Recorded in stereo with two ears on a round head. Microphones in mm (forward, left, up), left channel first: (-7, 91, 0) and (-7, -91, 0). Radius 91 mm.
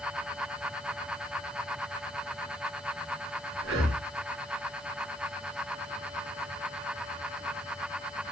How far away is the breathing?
About 5 m.